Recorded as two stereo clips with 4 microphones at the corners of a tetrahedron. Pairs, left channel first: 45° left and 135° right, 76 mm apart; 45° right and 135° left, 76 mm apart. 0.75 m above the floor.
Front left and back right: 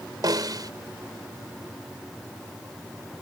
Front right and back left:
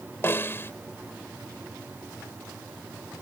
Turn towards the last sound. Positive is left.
turn(degrees=-105)